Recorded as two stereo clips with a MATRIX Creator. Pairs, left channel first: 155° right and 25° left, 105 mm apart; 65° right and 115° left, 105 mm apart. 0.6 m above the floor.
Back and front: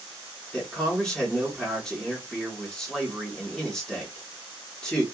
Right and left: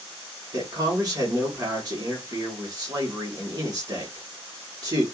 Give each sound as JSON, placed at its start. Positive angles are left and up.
{"t": 0.5, "sound": "a man speaking", "azimuth_deg": 125, "distance_m": 1.5}